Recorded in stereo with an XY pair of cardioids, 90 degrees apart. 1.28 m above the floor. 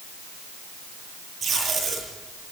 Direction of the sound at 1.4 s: 55° right.